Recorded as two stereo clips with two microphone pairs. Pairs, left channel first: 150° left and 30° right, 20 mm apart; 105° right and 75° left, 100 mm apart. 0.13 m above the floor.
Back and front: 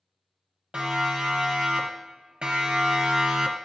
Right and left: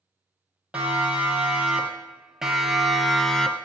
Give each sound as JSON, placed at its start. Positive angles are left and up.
{"t": 0.7, "sound": "a siren", "azimuth_deg": 0, "distance_m": 4.5}